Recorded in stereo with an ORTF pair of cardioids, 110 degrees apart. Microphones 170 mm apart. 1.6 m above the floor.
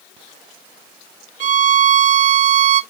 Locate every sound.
1.4 s a violin: 50° right, 0.5 m